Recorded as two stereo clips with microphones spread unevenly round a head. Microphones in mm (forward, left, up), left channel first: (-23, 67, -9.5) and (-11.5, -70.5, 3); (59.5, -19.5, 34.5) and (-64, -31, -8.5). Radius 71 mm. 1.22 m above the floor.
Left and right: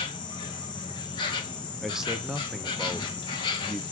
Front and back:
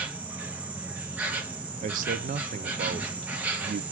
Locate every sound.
0.0 s an insect: 130° left, 0.8 m
1.8 s a man speaking: 175° right, 0.5 m